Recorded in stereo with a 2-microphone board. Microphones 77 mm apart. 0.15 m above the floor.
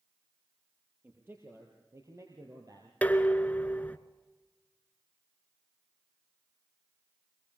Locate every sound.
1.0 s a man speaking: 25° right (ahead or behind), 4 m; by 2.9 s 50° right (ahead or behind), 3.5 m
3.0 s dishes clattering: 20° left (ahead or behind), 1.1 m